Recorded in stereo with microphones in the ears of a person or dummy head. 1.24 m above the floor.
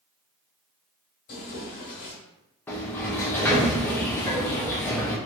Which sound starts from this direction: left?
Tearing paper, at 1.3 s.